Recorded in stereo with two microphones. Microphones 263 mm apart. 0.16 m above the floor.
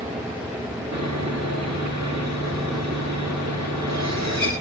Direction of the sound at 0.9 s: 70° right (ahead or behind).